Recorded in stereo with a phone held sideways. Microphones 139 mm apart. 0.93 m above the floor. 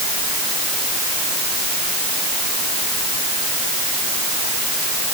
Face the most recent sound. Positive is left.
No sound to turn to.